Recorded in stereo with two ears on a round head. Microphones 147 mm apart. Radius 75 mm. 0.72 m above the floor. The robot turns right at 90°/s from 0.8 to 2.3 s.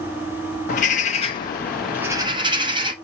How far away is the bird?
About 0.8 m.